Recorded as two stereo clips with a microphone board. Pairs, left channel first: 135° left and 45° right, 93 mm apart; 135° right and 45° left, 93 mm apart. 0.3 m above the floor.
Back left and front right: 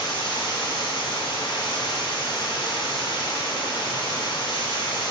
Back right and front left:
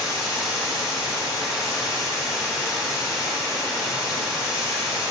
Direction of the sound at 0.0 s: 130° left.